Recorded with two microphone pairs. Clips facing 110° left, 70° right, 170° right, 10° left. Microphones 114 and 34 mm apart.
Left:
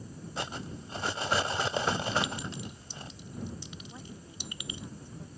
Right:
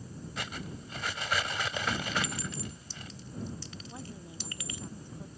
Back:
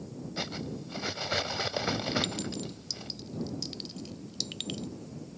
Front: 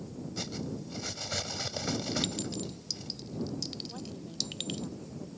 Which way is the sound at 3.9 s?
Straight ahead.